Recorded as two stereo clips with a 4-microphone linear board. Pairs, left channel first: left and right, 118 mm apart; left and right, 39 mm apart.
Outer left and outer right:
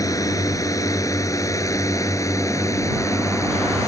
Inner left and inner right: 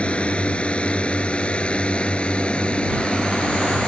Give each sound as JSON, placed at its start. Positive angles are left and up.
{"t": 0.0, "sound": "a drone", "side_deg": 30}